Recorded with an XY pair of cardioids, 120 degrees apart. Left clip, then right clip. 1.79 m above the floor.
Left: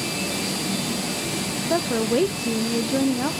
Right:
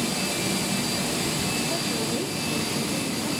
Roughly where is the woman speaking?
Ahead left.